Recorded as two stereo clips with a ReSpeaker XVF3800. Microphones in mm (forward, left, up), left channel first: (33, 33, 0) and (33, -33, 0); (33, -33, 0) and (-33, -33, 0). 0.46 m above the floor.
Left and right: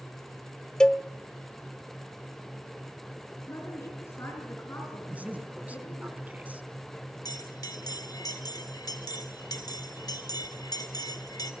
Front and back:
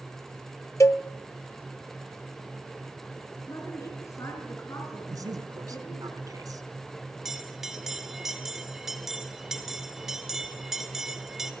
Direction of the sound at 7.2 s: 95° left.